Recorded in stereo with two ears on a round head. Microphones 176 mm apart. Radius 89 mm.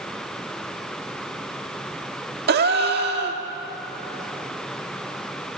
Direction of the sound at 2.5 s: 55° right (ahead or behind).